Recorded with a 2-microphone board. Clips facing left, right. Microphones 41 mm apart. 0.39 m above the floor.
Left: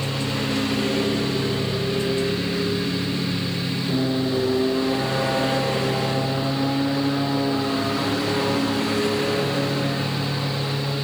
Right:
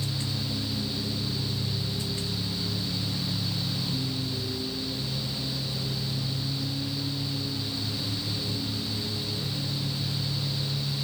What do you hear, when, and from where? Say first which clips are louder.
0.0 s a lawn mower: left 8 dB; 75° left (ahead or behind); by 11.1 s 80° left